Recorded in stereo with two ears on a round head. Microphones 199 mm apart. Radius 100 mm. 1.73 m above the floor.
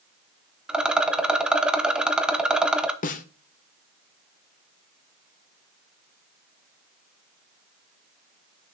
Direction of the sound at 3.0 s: 35° left (ahead or behind).